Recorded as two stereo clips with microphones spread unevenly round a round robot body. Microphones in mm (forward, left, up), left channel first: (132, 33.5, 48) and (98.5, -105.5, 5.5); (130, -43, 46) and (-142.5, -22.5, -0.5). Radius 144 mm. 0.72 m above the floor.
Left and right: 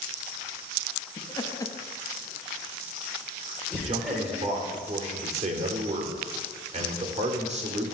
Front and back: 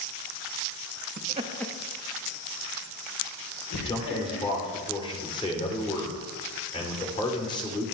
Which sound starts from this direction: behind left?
Laughter, at 1.2 s.